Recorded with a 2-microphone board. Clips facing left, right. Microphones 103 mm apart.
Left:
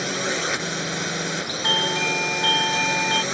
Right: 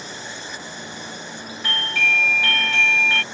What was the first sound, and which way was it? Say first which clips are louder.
A drone: left 10 dB; 70° left (ahead or behind).